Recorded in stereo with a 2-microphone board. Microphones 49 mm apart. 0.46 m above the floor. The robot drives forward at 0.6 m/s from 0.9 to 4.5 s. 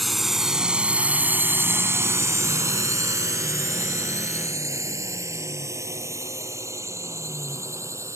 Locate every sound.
0.0 s a drone: centre (ahead or behind); by 8.2 s 65° right (ahead or behind)